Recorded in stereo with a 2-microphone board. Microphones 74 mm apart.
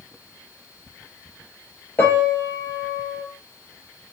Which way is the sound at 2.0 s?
30° left (ahead or behind).